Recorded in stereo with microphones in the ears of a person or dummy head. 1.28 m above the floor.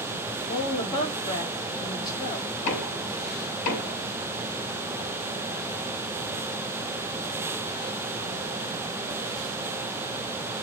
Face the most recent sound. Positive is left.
turn(degrees=40)  # may be behind; listen again after turning